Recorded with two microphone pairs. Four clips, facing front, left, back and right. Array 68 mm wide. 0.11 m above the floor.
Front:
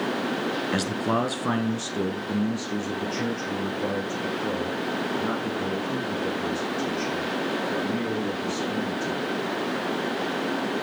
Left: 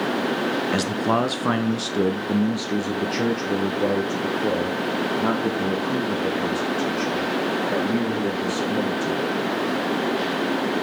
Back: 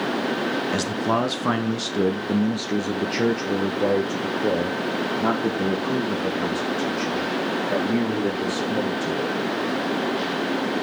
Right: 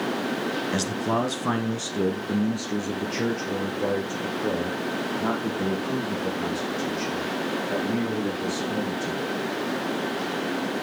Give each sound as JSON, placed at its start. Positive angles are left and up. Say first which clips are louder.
{"t": 0.7, "sound": "a man speaking", "louder": "left 3 dB, back 1 dB", "azimuth_deg": 50, "distance_m": 1.2}